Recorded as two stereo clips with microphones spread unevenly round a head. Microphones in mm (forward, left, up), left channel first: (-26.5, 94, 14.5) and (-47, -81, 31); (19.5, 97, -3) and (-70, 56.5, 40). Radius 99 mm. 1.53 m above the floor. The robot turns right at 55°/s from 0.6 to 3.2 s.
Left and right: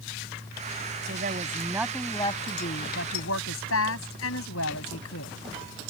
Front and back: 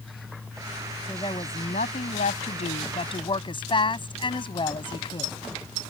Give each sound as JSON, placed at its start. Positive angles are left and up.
{"t": 1.0, "sound": "a woman speaking", "azimuth_deg": -55}